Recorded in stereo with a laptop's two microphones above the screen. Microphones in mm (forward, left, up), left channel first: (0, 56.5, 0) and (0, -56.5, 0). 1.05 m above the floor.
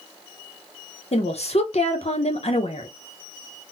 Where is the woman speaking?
65° left (ahead or behind), 0.6 m.